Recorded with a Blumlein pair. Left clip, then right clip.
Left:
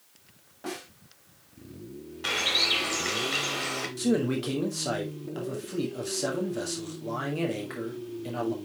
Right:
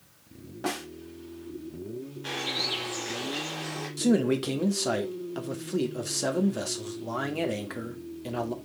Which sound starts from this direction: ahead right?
A snare drum, at 0.6 s.